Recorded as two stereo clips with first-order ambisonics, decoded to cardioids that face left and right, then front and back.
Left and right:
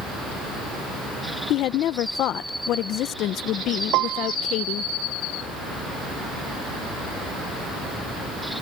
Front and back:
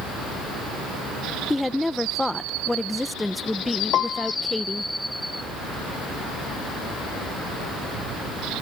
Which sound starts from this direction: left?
A woman speaking, at 1.5 s.